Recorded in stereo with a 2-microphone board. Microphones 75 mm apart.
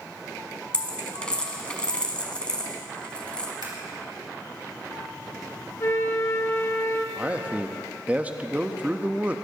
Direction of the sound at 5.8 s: 45° left (ahead or behind).